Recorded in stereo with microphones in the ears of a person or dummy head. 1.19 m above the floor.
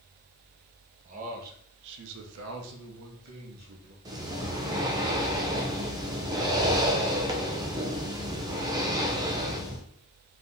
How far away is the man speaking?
About 1.1 m.